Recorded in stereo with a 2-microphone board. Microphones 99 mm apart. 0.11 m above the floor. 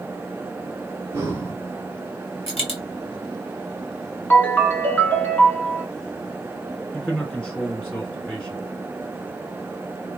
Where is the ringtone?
15° left (ahead or behind), 1.1 m.